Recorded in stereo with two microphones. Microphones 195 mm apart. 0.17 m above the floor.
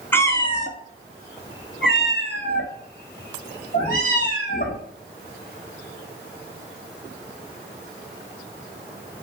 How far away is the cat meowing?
About 0.6 m.